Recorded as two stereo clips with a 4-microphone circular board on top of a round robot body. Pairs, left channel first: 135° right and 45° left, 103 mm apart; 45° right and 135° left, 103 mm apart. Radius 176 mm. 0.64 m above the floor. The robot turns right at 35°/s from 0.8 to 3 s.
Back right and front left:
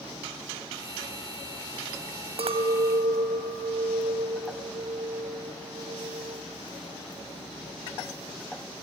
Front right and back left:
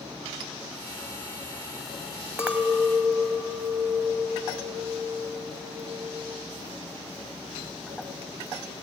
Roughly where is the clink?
Ahead left.